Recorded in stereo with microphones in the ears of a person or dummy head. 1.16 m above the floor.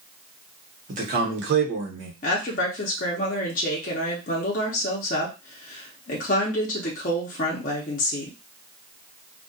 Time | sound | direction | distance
0.9 | a man speaking | 30° right (ahead or behind) | 0.9 m
2.2 | a woman speaking | 40° left (ahead or behind) | 0.6 m